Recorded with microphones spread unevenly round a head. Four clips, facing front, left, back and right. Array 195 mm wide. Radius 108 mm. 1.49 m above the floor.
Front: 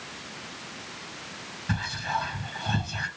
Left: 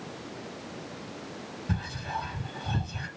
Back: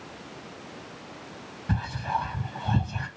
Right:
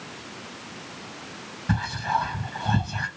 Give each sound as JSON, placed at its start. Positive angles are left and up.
{"t": 1.7, "sound": "whispering", "azimuth_deg": -95, "distance_m": 2.0}